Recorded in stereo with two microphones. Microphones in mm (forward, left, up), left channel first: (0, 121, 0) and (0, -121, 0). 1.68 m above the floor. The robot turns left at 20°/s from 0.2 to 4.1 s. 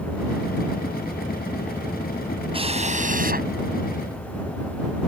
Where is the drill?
20° right (ahead or behind); by 3.5 s 40° right (ahead or behind).